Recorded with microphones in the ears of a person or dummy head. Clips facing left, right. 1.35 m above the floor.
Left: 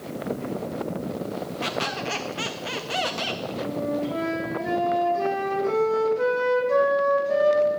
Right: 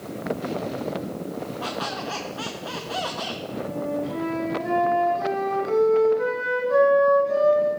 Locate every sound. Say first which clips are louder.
1.6 s a squeak: left 1 dB; 30° left (ahead or behind), 1.0 m
3.6 s a flute: left 1 dB; 50° left (ahead or behind), 4 m